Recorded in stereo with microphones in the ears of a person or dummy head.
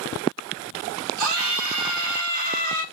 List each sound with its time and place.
1.2 s a scream: 70° right (ahead or behind), 1.5 m